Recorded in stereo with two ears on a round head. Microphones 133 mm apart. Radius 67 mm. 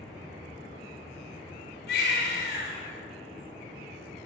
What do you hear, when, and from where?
1.9 s a baby crying: 75° left (ahead or behind), 5 m